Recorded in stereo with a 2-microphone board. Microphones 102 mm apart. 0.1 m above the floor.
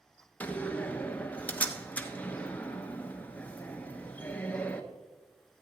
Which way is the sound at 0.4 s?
15° left (ahead or behind).